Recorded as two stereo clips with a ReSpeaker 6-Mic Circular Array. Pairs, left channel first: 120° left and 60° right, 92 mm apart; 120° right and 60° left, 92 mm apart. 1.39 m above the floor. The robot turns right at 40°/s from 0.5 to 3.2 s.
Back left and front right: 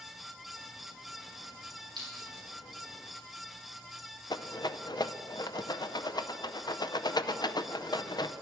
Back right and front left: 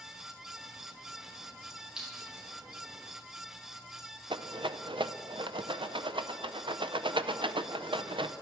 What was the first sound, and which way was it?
A clink, 20° right.